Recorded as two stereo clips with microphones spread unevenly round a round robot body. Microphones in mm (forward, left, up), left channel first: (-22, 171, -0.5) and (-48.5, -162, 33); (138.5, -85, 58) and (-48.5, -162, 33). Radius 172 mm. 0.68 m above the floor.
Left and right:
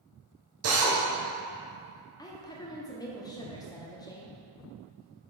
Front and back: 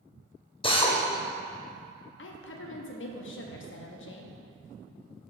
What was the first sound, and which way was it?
A drill, 45° right.